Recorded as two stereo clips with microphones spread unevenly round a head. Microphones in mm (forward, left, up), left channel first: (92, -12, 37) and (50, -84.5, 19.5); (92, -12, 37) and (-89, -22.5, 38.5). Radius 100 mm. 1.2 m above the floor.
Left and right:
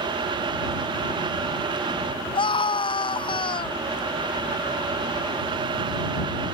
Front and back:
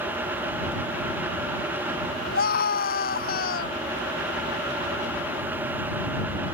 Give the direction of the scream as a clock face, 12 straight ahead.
10 o'clock.